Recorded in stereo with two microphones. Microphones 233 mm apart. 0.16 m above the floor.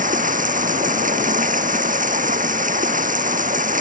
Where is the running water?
35° right (ahead or behind).